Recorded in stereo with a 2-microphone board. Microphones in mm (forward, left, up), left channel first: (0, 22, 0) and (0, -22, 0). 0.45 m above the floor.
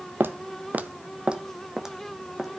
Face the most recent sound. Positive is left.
turn(degrees=0)  # may be behind; listen again after turning